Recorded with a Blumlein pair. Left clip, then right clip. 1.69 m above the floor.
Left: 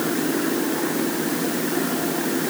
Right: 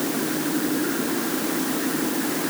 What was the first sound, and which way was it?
Only background noise.